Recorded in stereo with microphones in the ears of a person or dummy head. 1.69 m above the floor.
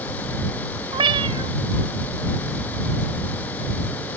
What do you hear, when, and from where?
0.9 s a cat meowing: 30° right (ahead or behind)